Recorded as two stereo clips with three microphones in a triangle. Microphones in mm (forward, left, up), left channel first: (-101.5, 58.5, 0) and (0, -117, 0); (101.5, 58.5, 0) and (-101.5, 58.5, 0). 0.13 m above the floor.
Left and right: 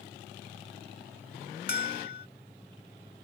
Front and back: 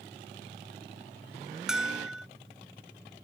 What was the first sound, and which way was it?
A bell, 95° left.